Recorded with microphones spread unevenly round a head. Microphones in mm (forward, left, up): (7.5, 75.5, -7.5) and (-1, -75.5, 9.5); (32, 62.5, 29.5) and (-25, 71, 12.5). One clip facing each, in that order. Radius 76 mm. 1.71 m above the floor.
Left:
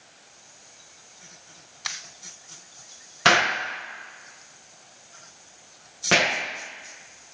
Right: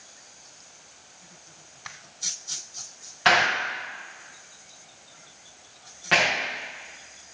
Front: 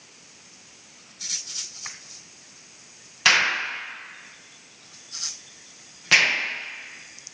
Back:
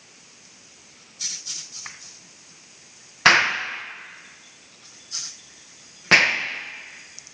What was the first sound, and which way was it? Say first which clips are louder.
An explosion: even, back 3 dB; 120° left.